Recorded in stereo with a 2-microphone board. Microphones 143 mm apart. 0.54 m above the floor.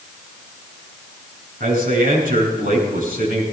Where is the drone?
I don't hear a drone.